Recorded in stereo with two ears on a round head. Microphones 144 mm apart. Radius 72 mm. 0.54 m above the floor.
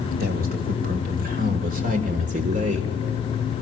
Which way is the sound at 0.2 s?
60° right (ahead or behind).